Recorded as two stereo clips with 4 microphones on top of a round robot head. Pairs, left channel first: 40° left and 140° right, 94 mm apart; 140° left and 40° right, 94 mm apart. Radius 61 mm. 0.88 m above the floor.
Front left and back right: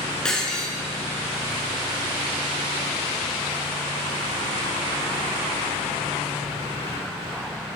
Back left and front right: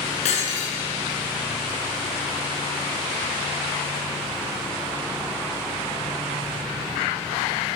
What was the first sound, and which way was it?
Breaking glass, 125° left.